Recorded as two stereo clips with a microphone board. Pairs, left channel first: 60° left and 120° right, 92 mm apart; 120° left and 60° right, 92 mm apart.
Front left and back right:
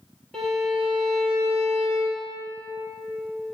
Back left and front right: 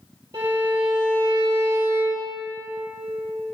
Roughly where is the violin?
Ahead.